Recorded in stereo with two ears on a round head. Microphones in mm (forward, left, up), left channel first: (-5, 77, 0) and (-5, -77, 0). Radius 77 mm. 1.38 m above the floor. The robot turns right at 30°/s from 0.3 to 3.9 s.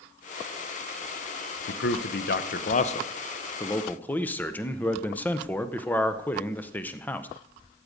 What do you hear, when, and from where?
1.7 s a man speaking: 105° left, 0.7 m; by 7.3 s 170° left, 0.7 m